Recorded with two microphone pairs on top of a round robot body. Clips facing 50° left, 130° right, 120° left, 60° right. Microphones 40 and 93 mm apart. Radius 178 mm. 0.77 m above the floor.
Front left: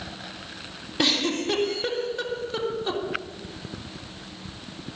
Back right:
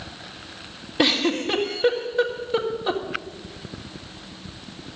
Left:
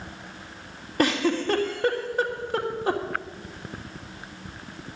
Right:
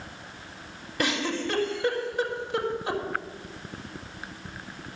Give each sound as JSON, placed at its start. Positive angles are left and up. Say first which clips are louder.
{"t": 1.0, "sound": "a giggle", "louder": "back right 3 dB, left 5 dB", "azimuth_deg": 160, "distance_m": 2.5}